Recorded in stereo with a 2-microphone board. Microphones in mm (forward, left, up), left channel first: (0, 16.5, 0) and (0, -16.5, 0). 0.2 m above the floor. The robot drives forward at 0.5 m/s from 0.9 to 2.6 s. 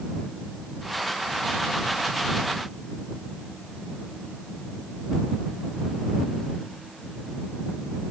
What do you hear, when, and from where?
Only background noise.